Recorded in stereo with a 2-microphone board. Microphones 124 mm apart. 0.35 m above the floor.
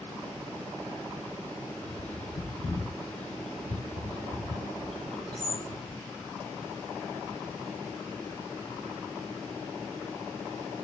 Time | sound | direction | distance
1.8 | a bird | 75° left (ahead or behind) | 3 m